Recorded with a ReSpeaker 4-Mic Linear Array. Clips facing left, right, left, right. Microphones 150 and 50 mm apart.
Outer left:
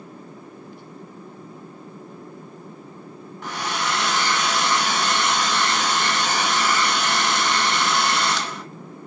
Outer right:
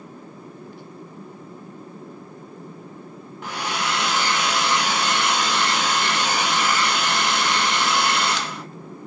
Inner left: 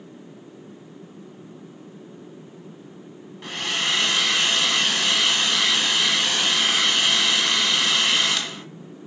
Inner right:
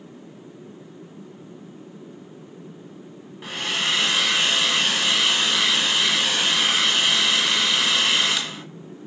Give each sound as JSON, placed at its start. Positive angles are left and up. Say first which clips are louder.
{"t": 3.4, "sound": "a hair dryer", "louder": "even, even", "side_deg": -10, "distance_m": 1.8}